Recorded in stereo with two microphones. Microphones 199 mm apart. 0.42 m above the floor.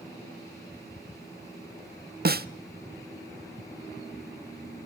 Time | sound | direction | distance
2.2 | a snare drum | 50° right (ahead or behind) | 0.6 m